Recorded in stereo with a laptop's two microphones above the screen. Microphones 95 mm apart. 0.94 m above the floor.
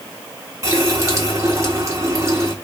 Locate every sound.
0.6 s a running tap: 30° right (ahead or behind), 1.6 m